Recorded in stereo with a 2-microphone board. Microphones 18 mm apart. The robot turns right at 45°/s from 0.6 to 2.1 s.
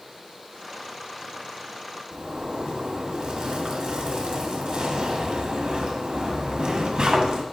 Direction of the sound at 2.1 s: 55° right (ahead or behind).